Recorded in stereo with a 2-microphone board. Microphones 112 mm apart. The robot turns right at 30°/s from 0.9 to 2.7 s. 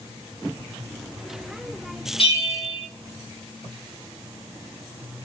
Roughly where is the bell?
Left.